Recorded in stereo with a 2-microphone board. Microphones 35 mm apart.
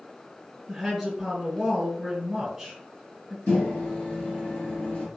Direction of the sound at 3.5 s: 35° left (ahead or behind).